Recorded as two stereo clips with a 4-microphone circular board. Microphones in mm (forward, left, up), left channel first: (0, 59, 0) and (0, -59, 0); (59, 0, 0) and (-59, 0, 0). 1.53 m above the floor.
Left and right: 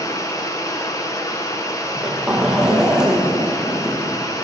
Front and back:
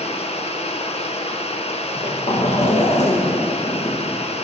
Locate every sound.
0.0 s running water: 30° left, 1.0 m
1.8 s a zipper: 5° right, 1.2 m